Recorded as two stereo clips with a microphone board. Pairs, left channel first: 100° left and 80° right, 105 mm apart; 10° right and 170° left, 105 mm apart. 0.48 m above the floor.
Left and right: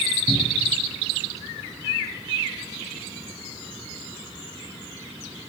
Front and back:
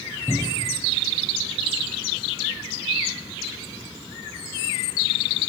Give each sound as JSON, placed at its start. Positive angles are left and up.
{"t": 0.3, "sound": "a cupboard door", "azimuth_deg": -115, "distance_m": 0.8}